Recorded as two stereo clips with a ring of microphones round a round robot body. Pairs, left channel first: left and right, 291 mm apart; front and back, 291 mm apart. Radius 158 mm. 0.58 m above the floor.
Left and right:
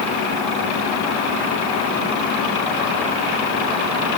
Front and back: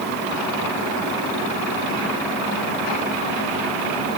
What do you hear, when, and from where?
Only background noise.